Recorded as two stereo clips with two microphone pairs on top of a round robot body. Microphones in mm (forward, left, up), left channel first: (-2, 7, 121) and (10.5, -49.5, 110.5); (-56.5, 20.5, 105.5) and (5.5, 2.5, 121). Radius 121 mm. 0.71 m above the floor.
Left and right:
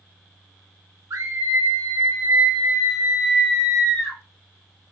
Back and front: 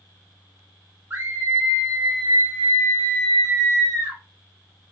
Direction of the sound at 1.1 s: 75° right.